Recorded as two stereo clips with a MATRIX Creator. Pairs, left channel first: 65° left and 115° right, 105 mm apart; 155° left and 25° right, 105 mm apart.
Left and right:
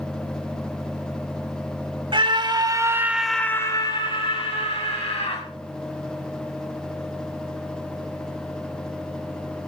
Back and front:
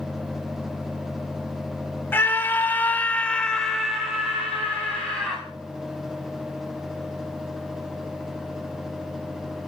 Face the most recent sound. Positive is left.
turn(degrees=60)